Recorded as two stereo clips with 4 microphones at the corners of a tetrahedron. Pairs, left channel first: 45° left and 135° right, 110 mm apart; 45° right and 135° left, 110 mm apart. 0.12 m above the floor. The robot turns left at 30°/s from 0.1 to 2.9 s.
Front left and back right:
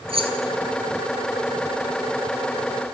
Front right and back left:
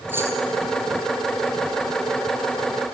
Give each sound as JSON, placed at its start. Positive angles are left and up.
{"t": 0.1, "sound": "keys jangling", "azimuth_deg": -155, "distance_m": 1.7}